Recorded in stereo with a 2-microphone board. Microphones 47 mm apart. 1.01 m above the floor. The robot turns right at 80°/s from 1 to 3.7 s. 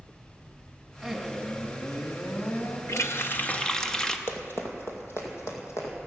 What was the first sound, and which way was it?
A man speaking, 20° right.